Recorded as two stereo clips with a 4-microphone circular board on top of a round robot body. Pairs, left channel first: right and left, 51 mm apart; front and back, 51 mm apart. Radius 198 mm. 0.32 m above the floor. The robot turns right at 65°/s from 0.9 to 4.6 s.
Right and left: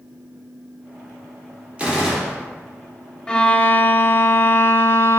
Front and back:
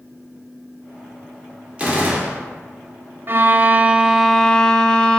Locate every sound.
1.8 s a gunshot: 135° left, 1.1 m; by 2.5 s straight behind, 1.1 m
3.3 s a violin: 160° right, 0.5 m; by 5.2 s 70° right, 0.5 m